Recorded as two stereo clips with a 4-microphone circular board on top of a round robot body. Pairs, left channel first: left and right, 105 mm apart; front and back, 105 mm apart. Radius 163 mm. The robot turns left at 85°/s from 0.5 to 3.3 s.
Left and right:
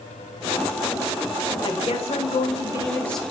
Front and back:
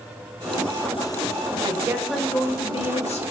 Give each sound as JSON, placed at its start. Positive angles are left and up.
{"t": 1.6, "sound": "a woman speaking", "azimuth_deg": 135, "distance_m": 0.7}